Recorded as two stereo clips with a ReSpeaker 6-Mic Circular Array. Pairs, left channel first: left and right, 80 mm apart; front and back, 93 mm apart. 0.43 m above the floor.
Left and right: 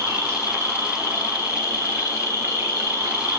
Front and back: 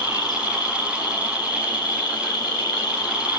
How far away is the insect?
About 1.8 m.